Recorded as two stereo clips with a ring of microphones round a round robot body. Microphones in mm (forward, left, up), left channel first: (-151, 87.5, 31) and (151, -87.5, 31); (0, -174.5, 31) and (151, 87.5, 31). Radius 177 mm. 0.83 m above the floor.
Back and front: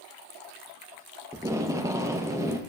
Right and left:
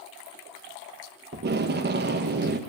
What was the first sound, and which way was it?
Tape being pulled, 45° left.